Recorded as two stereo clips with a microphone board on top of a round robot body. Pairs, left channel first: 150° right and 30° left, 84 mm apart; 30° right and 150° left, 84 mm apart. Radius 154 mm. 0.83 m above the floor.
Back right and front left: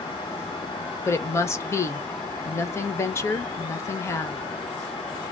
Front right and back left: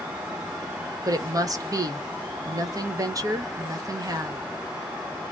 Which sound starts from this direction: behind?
A woman speaking, at 1.1 s.